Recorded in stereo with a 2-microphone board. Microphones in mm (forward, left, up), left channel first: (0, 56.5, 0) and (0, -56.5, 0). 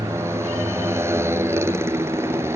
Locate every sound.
0.0 s a motorcycle: 20° right (ahead or behind)